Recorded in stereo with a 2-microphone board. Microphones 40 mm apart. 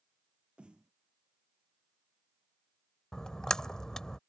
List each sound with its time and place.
0.6 s a snare drum: 25° right (ahead or behind)
3.1 s a splash: 15° left (ahead or behind)